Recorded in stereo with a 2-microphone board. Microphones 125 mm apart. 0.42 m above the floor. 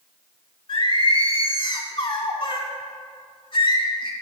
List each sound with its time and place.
0.7 s singing: 40° left (ahead or behind), 0.5 m